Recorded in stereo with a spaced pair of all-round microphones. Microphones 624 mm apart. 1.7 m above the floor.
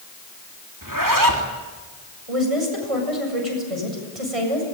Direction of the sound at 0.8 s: 30° right (ahead or behind).